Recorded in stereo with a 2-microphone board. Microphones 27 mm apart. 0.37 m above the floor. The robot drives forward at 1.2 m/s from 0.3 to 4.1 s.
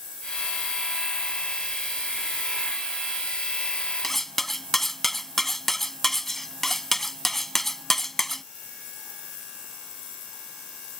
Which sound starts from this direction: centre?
Cutlery clinking, at 4.0 s.